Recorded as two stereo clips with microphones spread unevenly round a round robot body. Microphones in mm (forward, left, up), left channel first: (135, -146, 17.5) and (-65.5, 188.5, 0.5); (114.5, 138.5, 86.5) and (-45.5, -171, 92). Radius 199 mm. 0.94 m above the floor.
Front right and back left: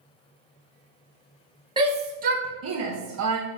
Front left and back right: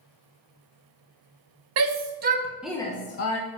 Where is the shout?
160° right, 1.3 m; by 3.4 s 85° left, 0.9 m.